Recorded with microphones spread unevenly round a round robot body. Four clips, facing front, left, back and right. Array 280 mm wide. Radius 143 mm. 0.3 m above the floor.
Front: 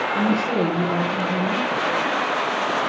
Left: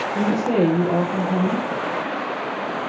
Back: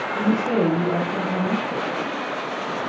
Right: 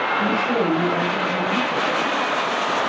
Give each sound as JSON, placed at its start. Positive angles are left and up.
{"t": 0.1, "sound": "a woman speaking", "azimuth_deg": 100, "distance_m": 9.5}